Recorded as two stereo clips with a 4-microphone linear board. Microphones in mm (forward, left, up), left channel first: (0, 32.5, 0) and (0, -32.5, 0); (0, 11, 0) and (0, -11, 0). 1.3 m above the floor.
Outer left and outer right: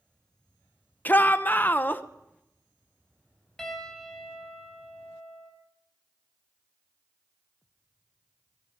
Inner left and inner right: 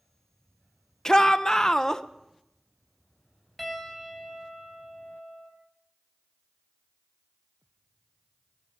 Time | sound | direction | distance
1.1 | a shout | 30° left (ahead or behind) | 0.9 m
3.6 | a piano | 5° left (ahead or behind) | 4.5 m